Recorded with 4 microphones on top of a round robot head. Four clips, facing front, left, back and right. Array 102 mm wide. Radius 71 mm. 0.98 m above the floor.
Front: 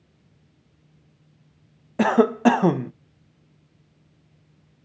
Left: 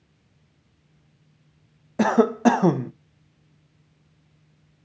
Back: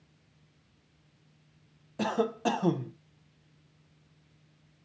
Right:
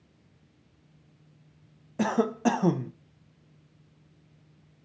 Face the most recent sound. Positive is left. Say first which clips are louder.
# left 7 dB, front 12 dB
turn(degrees=40)